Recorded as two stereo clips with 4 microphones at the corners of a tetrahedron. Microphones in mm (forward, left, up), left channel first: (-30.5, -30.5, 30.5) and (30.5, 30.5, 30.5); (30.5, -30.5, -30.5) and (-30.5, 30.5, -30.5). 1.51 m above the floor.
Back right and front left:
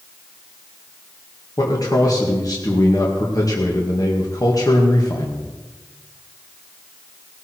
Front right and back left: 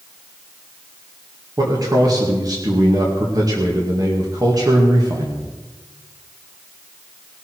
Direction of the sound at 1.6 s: Straight behind.